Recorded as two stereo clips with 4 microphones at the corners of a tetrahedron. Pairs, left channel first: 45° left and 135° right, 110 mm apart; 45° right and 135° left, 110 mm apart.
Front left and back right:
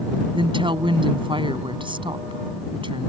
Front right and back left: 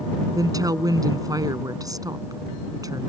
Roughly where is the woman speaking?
Behind.